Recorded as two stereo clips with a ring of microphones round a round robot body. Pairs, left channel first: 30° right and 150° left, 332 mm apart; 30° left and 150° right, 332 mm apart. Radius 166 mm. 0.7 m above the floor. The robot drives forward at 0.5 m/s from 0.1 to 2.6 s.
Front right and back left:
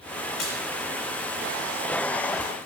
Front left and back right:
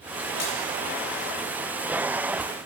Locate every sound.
0.4 s a splash: straight ahead, 2 m